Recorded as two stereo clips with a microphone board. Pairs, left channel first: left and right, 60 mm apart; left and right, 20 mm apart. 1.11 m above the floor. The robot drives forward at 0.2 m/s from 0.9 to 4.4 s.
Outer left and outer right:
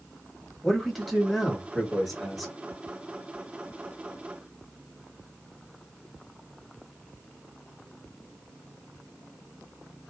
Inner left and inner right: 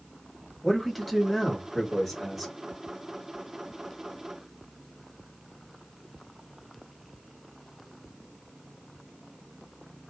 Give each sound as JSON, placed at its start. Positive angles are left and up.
{"t": 0.6, "sound": "a man speaking", "side_deg": 5, "distance_m": 1.3}